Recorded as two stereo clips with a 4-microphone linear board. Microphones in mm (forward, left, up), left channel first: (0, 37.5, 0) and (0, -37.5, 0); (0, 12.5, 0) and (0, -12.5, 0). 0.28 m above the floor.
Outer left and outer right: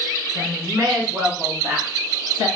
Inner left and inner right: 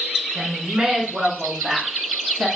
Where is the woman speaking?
40° right (ahead or behind), 3 m; by 2.5 s centre (ahead or behind), 3.5 m.